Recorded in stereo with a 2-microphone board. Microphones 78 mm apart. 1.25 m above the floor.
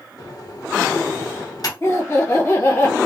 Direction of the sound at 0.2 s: 55° left (ahead or behind).